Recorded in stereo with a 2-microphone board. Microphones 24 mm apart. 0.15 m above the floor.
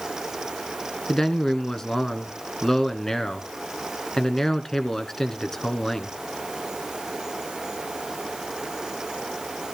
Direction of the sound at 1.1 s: 25° left (ahead or behind).